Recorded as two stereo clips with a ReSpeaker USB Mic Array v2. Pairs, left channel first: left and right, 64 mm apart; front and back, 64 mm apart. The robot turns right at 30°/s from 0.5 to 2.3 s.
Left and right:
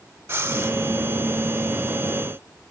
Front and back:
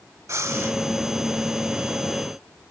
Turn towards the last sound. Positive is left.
turn(degrees=-90)